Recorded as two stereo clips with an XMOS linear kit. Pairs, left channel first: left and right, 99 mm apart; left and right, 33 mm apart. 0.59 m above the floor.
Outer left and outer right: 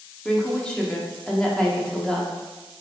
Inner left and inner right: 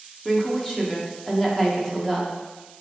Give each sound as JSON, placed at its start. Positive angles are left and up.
{"t": 0.2, "sound": "a woman speaking", "side_deg": 10, "distance_m": 0.9}